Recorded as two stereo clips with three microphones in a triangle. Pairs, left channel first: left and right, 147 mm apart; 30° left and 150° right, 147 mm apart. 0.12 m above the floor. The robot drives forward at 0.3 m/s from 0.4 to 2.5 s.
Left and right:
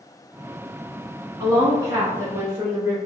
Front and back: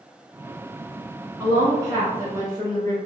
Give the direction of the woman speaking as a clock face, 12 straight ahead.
3 o'clock.